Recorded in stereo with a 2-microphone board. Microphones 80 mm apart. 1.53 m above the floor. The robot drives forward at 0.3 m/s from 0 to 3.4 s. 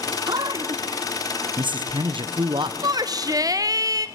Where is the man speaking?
60° right (ahead or behind), 1.0 m; by 2.7 s 75° right (ahead or behind), 0.9 m.